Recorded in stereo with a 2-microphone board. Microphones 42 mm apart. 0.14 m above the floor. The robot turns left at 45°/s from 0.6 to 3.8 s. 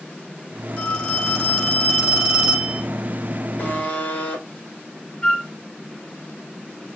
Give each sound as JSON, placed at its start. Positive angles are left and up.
{"t": 0.8, "sound": "a phone ringing", "azimuth_deg": 45, "distance_m": 1.2}
{"t": 3.6, "sound": "a buzzer", "side_deg": 40, "distance_m": 1.2}
{"t": 5.2, "sound": "a flute", "side_deg": 20, "distance_m": 1.3}